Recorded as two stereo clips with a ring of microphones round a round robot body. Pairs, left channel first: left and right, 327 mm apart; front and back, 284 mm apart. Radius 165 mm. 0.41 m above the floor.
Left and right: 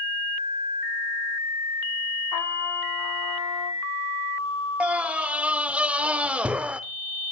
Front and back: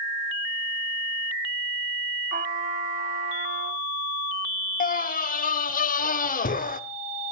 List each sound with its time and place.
2.3 s a trumpet: 120° left, 2 m
4.8 s a scream: 10° right, 0.9 m